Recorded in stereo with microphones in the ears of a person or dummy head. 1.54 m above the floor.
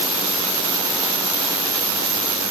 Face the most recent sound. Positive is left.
No sound to turn to.